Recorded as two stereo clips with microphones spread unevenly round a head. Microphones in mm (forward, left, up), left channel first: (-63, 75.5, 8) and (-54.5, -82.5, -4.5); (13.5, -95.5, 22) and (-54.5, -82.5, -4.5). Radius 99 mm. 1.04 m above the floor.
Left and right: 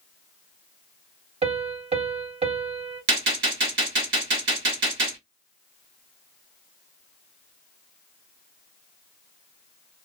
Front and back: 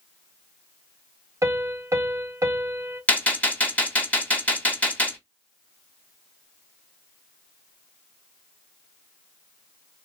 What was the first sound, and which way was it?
A piano, 130° right.